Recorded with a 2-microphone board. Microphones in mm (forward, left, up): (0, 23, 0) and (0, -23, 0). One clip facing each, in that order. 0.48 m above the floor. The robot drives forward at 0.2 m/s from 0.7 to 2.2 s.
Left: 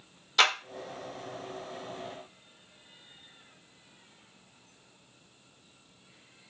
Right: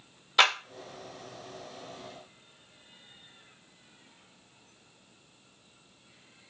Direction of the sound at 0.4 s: 15° right (ahead or behind).